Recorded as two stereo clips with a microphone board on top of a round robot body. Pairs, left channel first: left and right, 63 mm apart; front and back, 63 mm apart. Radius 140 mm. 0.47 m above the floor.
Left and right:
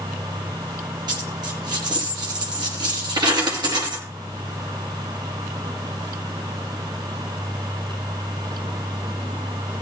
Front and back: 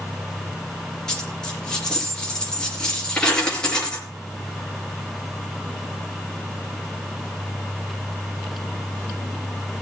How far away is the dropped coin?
About 4.5 m.